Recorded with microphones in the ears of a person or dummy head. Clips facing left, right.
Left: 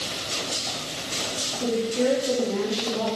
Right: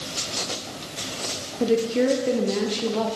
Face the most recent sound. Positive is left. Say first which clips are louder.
# right 3 dB
turn(degrees=-80)